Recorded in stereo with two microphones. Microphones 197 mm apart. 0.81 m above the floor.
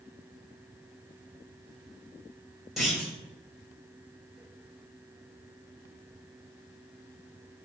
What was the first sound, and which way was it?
A clunk, centre (ahead or behind).